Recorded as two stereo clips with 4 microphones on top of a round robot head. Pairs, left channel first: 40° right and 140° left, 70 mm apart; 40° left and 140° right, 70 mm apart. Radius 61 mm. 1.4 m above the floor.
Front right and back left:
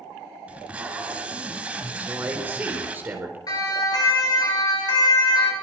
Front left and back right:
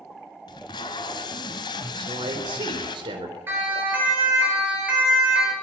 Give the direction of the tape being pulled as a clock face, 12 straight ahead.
10 o'clock.